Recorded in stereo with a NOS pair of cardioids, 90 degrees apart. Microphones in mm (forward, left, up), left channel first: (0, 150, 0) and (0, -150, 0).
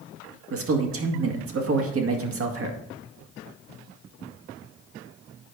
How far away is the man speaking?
About 1.9 m.